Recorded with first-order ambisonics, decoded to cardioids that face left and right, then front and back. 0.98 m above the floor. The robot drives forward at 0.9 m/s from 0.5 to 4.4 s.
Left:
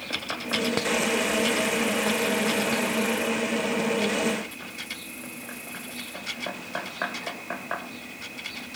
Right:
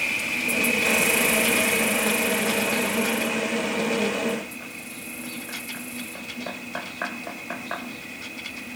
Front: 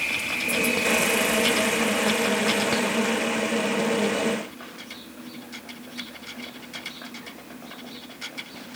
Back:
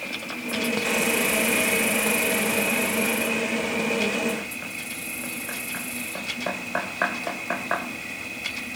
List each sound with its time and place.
0.0 s an insect: 60° right; by 8.8 s 165° right